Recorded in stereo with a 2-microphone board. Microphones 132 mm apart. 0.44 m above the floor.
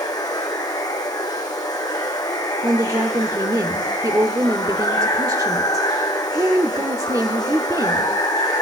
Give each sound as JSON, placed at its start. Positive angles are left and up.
{"t": 0.0, "sound": "running water", "side_deg": 35, "distance_m": 4.0}
{"t": 2.6, "sound": "a woman speaking", "side_deg": -30, "distance_m": 0.9}